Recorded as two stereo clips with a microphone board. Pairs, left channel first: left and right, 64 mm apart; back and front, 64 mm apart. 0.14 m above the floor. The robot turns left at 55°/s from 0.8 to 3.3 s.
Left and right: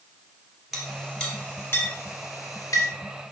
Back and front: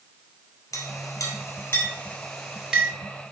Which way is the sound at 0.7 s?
175° right.